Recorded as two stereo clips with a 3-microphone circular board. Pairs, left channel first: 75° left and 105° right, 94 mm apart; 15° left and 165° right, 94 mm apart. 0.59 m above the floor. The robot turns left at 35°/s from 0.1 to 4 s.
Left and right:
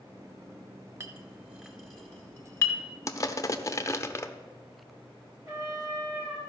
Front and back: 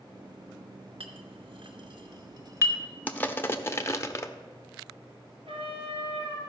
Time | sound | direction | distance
1.0 | a clink | 165° right | 1.3 m
3.1 | crushing | 75° left | 0.6 m
5.5 | a trumpet | 160° right | 3.5 m